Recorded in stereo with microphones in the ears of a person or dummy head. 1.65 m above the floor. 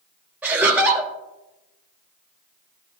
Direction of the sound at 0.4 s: 5° right (ahead or behind).